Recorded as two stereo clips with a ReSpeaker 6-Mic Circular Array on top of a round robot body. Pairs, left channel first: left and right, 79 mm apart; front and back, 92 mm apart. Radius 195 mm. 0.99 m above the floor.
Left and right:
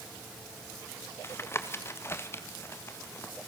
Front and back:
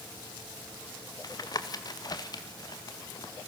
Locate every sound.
1.2 s tapping: 35° left, 1.9 m